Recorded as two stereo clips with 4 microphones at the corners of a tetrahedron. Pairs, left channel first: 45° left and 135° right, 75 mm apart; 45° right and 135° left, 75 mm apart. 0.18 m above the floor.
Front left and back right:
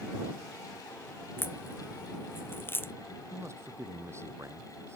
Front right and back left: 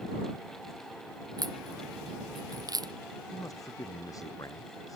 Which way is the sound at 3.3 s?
85° right.